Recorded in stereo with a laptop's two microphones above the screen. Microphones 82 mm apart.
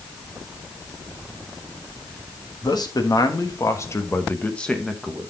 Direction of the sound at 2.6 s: 55° left (ahead or behind).